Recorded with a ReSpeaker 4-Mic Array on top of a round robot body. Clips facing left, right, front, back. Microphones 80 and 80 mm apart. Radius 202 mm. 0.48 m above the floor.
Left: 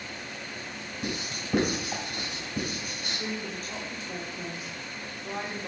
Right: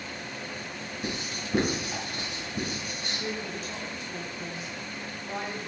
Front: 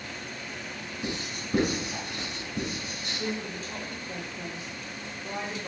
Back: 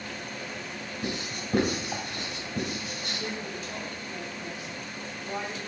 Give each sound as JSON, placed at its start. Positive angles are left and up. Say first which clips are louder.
{"t": 1.0, "sound": "writing", "louder": "left 1 dB, back 1 dB", "azimuth_deg": 135, "distance_m": 2.5}
{"t": 3.1, "sound": "a woman speaking", "louder": "even, front 4 dB", "azimuth_deg": 50, "distance_m": 1.4}